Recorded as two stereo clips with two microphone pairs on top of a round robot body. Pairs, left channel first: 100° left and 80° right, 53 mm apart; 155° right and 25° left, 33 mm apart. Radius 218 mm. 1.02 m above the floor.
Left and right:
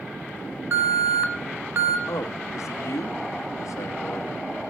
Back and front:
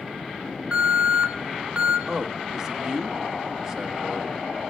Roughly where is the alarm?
Ahead right.